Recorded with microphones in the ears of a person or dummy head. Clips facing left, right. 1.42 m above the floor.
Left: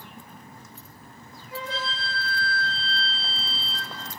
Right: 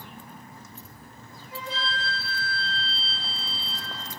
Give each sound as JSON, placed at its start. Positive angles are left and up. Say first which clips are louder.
{"t": 1.5, "sound": "a flute", "louder": "left 1 dB", "side_deg": 75, "distance_m": 2.0}